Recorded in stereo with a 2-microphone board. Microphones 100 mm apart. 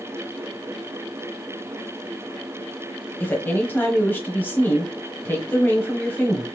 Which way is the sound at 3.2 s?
20° left (ahead or behind).